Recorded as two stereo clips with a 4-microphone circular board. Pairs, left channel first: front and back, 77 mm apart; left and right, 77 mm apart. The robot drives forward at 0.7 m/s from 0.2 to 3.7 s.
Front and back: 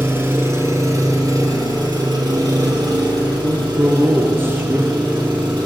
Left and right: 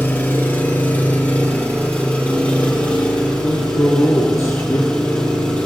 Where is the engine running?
135° left, 1.8 m; by 5.7 s 165° left, 3.5 m.